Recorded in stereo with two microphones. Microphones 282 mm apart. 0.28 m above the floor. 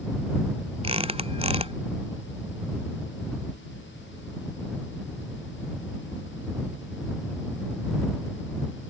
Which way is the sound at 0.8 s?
20° right (ahead or behind).